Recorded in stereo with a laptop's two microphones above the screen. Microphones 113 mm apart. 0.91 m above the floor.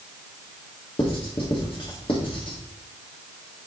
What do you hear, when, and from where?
1.0 s writing: 50° left (ahead or behind), 1.4 m